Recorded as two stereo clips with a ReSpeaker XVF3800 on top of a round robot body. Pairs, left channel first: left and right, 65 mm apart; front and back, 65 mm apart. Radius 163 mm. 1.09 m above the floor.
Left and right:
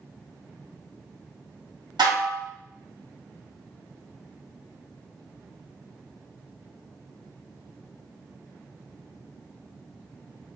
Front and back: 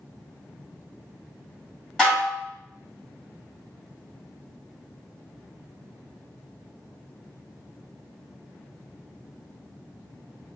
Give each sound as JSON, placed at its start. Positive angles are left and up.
{"t": 2.0, "sound": "dishes clattering", "azimuth_deg": -85, "distance_m": 1.6}